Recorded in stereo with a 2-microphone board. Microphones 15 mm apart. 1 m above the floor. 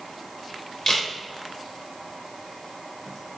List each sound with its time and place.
0.9 s a camera shutter: 40° left (ahead or behind), 3 m